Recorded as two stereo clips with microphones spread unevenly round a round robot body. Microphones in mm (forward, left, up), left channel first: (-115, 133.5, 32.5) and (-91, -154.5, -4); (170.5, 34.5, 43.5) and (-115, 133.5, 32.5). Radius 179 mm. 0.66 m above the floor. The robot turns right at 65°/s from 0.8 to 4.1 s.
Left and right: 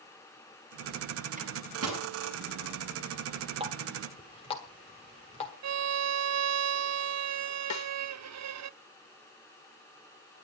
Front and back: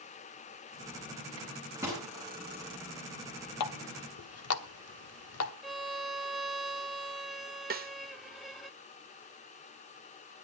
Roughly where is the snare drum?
Left.